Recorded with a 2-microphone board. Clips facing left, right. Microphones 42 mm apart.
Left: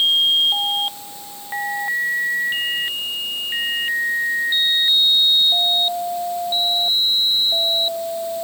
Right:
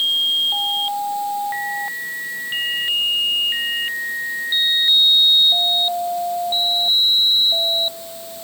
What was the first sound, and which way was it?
Only background noise.